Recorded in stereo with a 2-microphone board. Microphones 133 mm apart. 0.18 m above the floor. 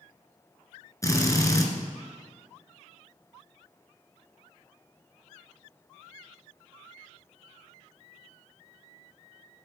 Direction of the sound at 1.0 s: 25° left (ahead or behind).